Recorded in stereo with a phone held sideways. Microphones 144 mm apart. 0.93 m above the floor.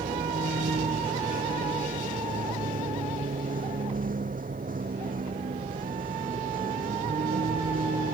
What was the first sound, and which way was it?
A vehicle, 70° right (ahead or behind).